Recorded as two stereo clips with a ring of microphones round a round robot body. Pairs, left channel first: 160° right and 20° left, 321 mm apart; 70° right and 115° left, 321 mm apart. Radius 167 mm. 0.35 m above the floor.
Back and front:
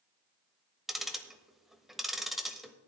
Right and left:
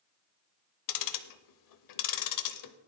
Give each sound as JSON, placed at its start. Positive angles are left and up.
{"t": 0.9, "sound": "ticking", "azimuth_deg": -65, "distance_m": 0.9}